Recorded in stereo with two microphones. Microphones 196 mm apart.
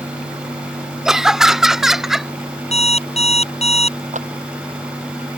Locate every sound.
1.1 s laughter: 5° right (ahead or behind); by 2.3 s centre (ahead or behind)
2.7 s an alarm clock: 30° left (ahead or behind)
4.1 s a clap: 40° right (ahead or behind)